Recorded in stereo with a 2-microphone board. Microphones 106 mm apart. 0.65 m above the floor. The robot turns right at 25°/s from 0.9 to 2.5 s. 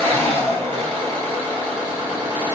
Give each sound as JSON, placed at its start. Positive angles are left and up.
{"t": 0.0, "sound": "an engine running", "azimuth_deg": -85, "distance_m": 1.5}